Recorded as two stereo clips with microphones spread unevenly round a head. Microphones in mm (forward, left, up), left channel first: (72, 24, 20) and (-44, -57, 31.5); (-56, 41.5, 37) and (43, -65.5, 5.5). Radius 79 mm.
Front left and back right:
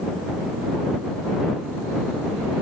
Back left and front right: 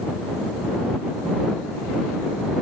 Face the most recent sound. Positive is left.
No sound to turn to.